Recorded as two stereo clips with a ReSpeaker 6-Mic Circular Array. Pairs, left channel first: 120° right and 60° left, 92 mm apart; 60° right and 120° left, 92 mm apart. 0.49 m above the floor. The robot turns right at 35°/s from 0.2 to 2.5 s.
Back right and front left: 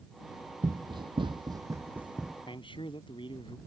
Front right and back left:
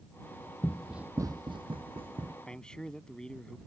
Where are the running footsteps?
5° left; by 2.4 s 150° left.